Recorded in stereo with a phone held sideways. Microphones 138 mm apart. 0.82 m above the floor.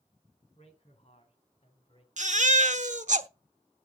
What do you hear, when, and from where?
0.6 s a man speaking: 55° left (ahead or behind), 4 m; by 2.1 s 50° left (ahead or behind), 3 m
2.2 s a baby crying: 60° right (ahead or behind), 0.9 m